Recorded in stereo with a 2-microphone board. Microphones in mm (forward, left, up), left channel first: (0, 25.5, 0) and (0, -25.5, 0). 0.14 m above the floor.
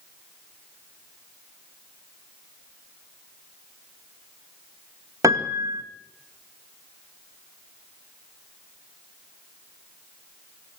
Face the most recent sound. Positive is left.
turn(degrees=-85)